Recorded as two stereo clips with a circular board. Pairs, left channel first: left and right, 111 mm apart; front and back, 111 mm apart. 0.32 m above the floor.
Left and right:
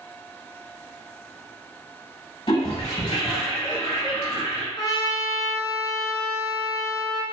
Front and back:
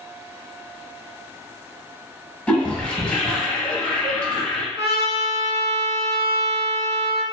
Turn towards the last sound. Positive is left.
turn(degrees=145)